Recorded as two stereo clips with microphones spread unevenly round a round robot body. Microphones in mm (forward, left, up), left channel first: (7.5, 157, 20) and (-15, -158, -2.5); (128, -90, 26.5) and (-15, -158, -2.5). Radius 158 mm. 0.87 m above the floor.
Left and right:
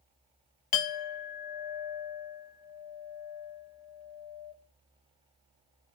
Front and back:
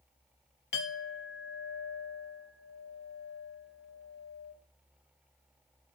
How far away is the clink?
About 0.5 m.